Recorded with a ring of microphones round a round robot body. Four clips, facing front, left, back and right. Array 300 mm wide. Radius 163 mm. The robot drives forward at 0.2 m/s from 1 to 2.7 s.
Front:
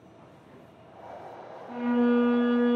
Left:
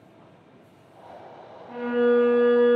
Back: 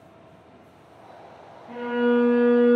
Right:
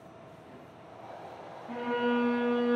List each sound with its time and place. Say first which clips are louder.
1.7 s a violin: left 8 dB, back 2 dB; 175° left, 0.7 m